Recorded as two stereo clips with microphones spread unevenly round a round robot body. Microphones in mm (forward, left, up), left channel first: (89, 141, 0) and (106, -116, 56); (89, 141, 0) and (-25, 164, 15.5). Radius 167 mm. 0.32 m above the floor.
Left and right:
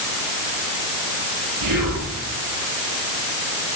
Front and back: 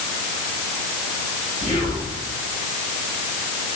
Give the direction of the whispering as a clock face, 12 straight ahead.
3 o'clock.